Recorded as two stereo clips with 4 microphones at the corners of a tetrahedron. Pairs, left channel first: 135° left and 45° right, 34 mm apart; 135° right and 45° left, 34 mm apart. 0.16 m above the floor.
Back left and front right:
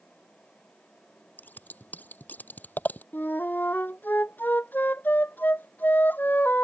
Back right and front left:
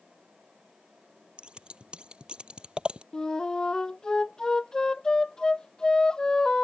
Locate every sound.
1.4 s scissors: 105° left
3.1 s a flute: 155° left